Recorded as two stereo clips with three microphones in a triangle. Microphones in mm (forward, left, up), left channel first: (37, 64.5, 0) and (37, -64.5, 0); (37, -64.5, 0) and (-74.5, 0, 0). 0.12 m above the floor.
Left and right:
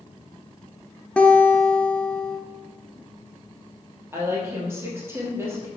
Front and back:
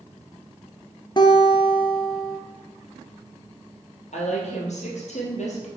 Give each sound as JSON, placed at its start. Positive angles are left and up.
{"t": 1.2, "sound": "a guitar", "azimuth_deg": 10, "distance_m": 0.9}
{"t": 4.1, "sound": "a woman speaking", "azimuth_deg": -20, "distance_m": 2.5}